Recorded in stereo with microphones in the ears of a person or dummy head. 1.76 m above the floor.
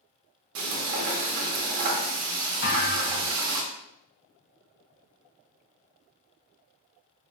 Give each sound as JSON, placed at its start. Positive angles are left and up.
{"t": 0.6, "sound": "frying", "side_deg": -45, "distance_m": 0.7}
{"t": 2.6, "sound": "a thud", "side_deg": 50, "distance_m": 1.9}